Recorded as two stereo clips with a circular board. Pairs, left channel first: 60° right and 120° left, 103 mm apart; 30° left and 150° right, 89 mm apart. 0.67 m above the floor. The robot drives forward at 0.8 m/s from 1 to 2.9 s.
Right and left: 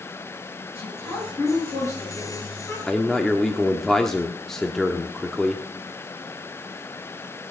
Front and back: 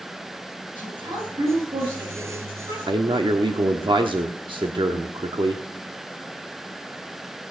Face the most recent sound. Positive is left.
turn(degrees=-145)